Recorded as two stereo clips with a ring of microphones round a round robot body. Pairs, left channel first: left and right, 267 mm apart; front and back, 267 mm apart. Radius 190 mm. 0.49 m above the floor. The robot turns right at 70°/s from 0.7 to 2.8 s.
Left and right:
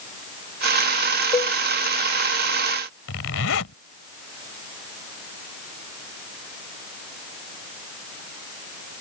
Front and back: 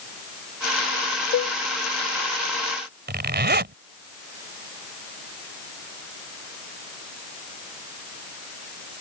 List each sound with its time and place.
1.3 s a cowbell: 20° left; by 1.6 s 35° left
3.1 s a zipper: 135° left